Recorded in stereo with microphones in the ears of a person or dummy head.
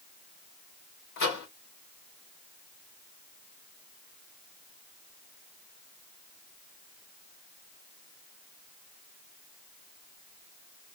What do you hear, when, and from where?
1.2 s a microwave: 60° left (ahead or behind), 1.2 m